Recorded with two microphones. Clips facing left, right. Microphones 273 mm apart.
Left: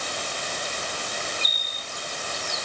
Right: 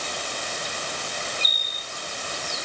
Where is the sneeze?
No sneeze in this recording.